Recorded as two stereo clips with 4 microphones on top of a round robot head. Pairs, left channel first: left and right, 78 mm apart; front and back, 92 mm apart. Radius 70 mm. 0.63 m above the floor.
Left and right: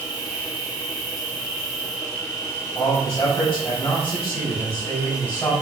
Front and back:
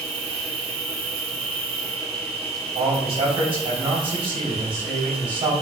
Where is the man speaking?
165° left, 4 m.